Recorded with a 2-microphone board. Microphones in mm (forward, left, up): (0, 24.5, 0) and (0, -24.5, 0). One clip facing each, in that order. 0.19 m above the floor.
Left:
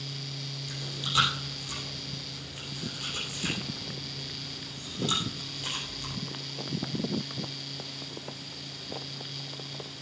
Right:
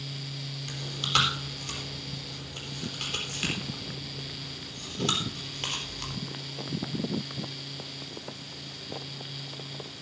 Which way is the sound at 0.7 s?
75° right (ahead or behind).